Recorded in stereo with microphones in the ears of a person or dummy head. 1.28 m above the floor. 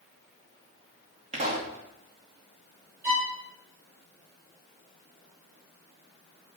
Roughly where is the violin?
Centre.